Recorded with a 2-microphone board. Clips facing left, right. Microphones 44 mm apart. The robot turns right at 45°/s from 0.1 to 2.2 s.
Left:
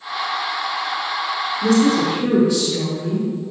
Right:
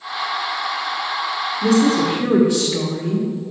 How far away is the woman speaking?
About 1.2 m.